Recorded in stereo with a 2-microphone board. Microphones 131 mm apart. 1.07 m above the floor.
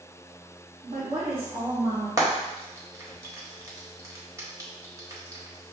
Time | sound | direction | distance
0.8 | a woman speaking | 60° right (ahead or behind) | 1.3 m
2.2 | frying | 25° right (ahead or behind) | 1.2 m